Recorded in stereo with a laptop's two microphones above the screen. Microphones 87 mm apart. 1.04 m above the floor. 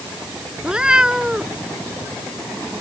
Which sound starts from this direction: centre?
A cat meowing, at 0.6 s.